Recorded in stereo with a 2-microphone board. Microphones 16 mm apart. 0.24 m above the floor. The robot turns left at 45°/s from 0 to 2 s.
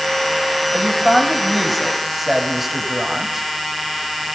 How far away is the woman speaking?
About 1.5 m.